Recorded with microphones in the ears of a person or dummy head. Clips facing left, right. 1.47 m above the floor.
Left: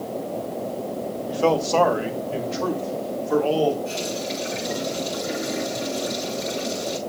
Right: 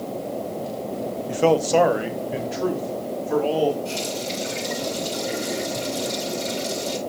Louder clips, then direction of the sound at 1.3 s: Right 2 dB; 25° right (ahead or behind).